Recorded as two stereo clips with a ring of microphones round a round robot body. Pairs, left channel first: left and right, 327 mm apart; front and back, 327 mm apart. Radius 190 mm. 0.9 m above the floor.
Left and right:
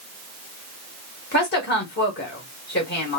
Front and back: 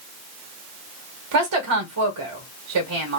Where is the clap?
No clap in this recording.